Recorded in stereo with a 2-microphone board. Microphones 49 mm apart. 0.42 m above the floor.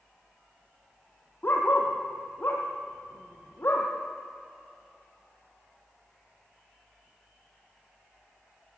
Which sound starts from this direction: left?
A dog barking, at 1.4 s.